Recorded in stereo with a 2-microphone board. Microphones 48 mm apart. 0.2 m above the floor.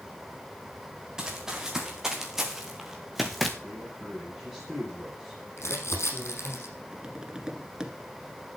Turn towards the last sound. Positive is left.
turn(degrees=-15)  # may be behind; listen again after turning